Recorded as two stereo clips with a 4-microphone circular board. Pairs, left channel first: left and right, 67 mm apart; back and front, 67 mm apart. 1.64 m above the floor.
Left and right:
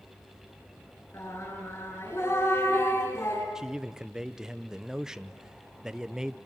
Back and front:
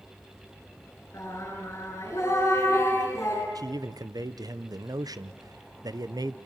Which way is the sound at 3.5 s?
10° right.